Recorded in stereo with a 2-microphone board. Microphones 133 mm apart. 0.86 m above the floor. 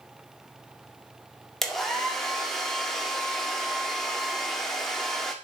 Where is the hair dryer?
Centre (ahead or behind), 2 m.